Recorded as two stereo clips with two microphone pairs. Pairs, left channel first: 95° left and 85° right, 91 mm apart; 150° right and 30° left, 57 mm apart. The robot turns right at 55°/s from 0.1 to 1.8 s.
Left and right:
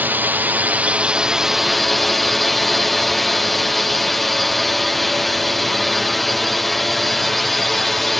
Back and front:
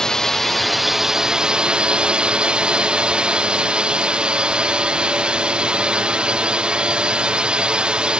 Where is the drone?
90° right; by 8.2 s 5° left.